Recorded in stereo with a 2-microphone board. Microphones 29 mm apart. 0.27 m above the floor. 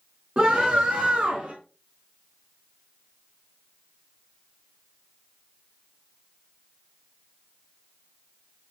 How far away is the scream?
About 4 m.